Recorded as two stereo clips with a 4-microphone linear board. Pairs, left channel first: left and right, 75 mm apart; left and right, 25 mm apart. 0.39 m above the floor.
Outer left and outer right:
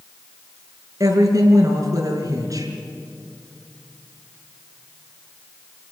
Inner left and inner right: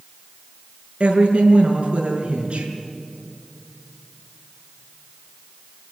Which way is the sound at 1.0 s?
50° right (ahead or behind).